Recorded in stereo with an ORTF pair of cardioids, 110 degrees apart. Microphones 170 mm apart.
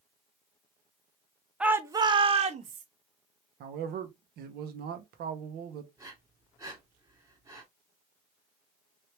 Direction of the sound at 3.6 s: 65° right.